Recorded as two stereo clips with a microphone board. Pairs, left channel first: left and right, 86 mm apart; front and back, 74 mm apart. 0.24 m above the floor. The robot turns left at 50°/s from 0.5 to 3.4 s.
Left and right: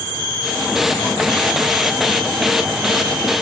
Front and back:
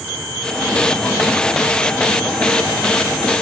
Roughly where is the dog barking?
I don't hear a dog barking.